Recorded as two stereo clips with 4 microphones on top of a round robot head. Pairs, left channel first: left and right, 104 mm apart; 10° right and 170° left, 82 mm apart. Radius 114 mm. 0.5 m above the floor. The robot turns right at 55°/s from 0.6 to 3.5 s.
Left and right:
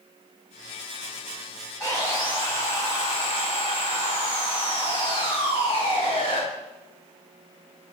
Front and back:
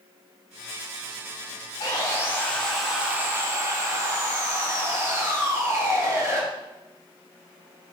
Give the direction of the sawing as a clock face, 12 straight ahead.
11 o'clock.